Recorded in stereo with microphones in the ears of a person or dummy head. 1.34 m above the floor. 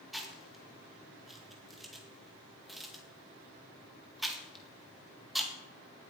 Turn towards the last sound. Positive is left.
turn(degrees=0)  # may be behind; listen again after turning